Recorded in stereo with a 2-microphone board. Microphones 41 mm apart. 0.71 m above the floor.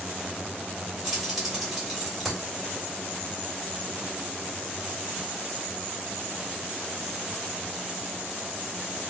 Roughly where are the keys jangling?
Centre.